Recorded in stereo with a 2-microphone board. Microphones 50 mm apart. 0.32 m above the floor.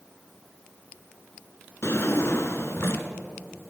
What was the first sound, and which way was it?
A drawer, 50° left (ahead or behind).